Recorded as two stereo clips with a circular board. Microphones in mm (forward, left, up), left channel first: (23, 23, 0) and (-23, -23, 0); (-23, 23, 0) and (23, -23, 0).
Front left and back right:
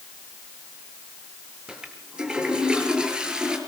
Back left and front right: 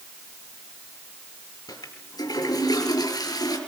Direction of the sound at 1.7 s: 150° left.